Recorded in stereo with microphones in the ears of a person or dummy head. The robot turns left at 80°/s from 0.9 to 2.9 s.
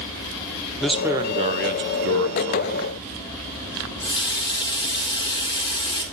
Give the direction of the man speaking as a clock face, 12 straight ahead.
12 o'clock.